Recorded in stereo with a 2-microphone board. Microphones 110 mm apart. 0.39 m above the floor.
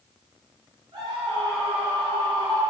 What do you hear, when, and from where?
0.9 s a scream: 40° right (ahead or behind), 7 m; by 2.6 s 45° right (ahead or behind), 8 m